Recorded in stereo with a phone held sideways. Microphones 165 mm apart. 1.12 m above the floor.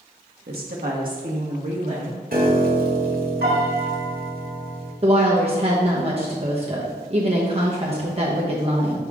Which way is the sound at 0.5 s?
75° right (ahead or behind).